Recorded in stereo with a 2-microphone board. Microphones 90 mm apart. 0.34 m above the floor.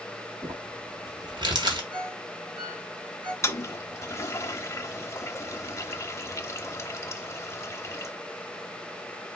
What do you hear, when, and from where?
0.4 s crumpling: 60° right (ahead or behind), 1.7 m
1.9 s a ringtone: 50° right (ahead or behind), 2.5 m
3.4 s a toilet flushing: 30° left (ahead or behind), 0.6 m